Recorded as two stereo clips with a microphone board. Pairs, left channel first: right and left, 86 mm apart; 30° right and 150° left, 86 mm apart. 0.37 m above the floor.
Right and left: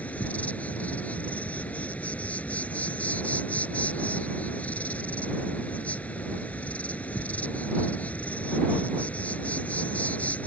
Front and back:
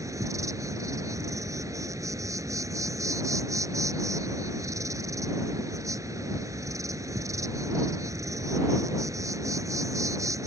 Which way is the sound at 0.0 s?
165° right.